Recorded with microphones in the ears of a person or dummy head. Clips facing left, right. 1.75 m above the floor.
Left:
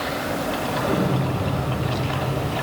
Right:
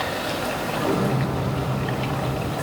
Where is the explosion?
75° right (ahead or behind), 2.5 m.